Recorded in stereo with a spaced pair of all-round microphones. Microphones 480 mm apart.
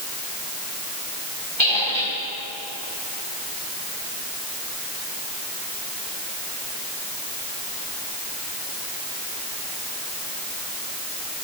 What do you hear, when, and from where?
1.6 s a squeak: 75° left (ahead or behind), 4.5 m